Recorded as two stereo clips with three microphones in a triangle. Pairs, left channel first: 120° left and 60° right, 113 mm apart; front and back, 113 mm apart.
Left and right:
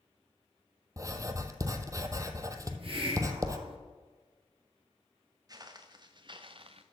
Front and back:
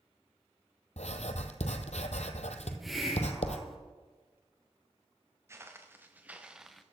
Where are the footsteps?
115° right, 1.8 m; by 6.8 s 90° right, 0.9 m.